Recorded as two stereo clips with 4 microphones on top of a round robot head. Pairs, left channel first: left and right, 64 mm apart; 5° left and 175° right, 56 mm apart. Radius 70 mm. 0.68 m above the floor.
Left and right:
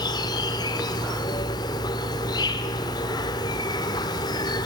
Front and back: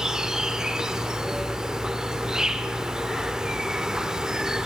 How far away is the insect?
About 1.1 m.